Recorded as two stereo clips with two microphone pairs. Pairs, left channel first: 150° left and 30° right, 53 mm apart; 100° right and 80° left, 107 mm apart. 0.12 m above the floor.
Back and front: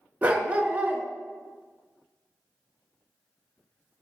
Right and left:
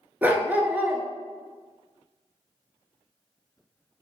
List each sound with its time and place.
0.2 s a dog barking: 15° left, 0.7 m